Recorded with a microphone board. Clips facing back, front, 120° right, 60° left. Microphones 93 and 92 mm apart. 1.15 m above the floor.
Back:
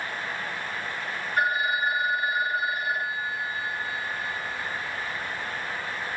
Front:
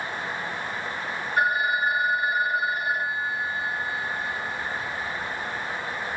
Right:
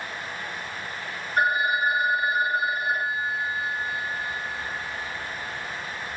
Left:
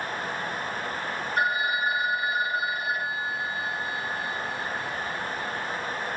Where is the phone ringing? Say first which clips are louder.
Front 2 dB, right 4 dB; 70° right, 1.4 m.